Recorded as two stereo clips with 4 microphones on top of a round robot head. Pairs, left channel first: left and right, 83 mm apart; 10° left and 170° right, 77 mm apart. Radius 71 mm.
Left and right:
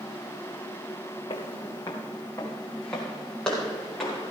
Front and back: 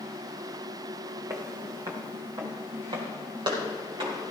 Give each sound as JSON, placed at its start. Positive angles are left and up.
{"t": 1.3, "sound": "footsteps", "azimuth_deg": 135, "distance_m": 2.5}